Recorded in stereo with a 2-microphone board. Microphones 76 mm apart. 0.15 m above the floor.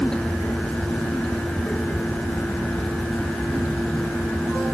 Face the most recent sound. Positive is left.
No sound to turn to.